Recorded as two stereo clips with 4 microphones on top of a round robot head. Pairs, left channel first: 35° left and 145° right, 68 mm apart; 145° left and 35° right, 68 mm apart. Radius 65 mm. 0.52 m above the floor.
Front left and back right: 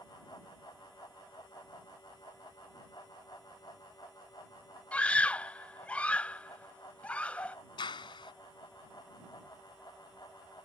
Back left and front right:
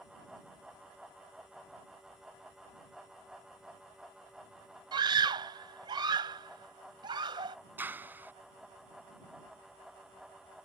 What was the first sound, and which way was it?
A scream, 35° right.